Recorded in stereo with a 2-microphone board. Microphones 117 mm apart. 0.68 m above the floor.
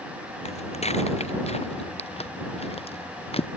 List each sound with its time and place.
0.5 s footsteps: 65° left (ahead or behind); by 3.5 s 55° left (ahead or behind)